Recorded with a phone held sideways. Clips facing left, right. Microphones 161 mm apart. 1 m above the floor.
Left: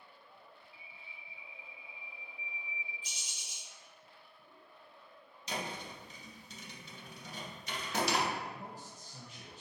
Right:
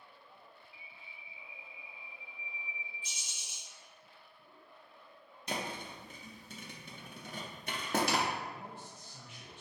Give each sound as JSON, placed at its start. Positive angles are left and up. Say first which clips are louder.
{"t": 0.7, "sound": "a bird", "louder": "even", "side_deg": 35, "distance_m": 0.5}
{"t": 3.0, "sound": "a bird", "louder": "right 1 dB", "side_deg": 40, "distance_m": 1.8}
{"t": 5.5, "sound": "a thud", "louder": "right 1 dB", "side_deg": -50, "distance_m": 0.6}
{"t": 8.4, "sound": "a man speaking", "louder": "even", "side_deg": 35, "distance_m": 0.5}